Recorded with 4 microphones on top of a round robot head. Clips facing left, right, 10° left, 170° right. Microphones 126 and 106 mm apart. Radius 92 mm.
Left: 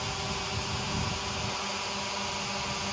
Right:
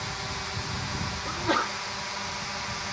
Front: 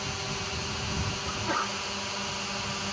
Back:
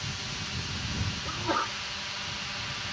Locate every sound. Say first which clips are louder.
0.0 s a drone: left 1 dB, front 5 dB; 20° left; by 2.9 s 30° left
1.2 s a sneeze: right 7 dB, back 2 dB; 90° right